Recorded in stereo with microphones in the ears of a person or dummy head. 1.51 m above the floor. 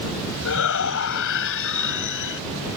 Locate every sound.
0.5 s a shout: 65° left (ahead or behind)